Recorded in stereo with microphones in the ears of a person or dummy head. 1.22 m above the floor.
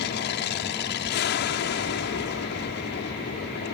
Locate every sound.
0.0 s an aircraft: 55° left (ahead or behind)